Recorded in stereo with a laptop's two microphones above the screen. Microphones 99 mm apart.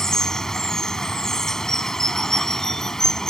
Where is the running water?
5° left (ahead or behind).